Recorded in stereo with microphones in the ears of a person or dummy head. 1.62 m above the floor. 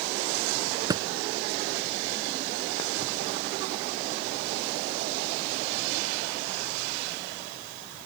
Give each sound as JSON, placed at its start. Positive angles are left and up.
{"t": 0.9, "sound": "a thud", "side_deg": -20}